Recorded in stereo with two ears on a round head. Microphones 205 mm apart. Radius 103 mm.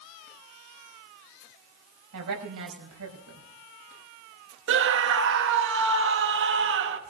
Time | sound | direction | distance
2.1 | a woman speaking | 80° right | 5 m
4.7 | a scream | 55° right (ahead or behind) | 1.6 m